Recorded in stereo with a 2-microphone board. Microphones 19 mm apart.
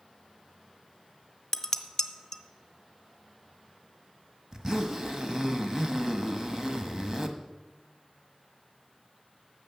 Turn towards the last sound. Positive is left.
turn(degrees=-25)  # may be behind; listen again after turning